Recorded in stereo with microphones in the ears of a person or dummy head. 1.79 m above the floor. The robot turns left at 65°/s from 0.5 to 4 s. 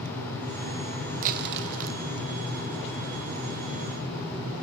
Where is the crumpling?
45° right, 1.0 m; by 2.0 s 95° right, 1.0 m.